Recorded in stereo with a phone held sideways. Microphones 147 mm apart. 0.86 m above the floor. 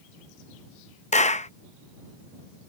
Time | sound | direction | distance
1.1 | a clap | 55° left (ahead or behind) | ?